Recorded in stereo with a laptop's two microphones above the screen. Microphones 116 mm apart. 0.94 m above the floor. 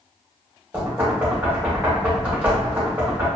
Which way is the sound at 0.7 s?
15° right (ahead or behind).